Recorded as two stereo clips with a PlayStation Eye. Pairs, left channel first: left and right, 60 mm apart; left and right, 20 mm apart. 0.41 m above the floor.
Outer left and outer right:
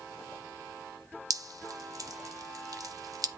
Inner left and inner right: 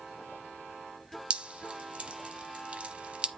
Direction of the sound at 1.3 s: 65° right (ahead or behind).